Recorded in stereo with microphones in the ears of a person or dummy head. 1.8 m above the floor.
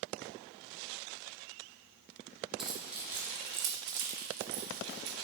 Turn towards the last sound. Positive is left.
turn(degrees=-45)  # may be behind; listen again after turning